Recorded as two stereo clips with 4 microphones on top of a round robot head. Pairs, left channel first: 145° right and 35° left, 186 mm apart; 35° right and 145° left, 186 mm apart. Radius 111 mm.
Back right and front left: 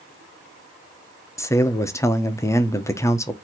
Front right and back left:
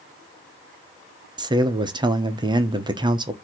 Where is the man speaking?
165° left, 0.8 m.